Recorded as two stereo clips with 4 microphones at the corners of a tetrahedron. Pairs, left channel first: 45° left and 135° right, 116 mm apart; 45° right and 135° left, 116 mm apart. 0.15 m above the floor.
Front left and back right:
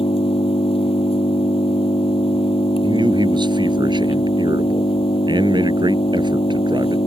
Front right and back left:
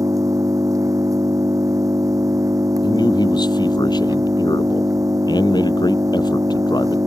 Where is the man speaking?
90° right.